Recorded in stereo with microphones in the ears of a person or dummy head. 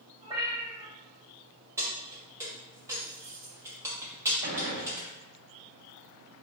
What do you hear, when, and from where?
0.2 s a cat meowing: 20° right (ahead or behind), 1.7 m
1.8 s keys jangling: 10° right (ahead or behind), 1.0 m
4.4 s a gunshot: 60° right (ahead or behind), 1.3 m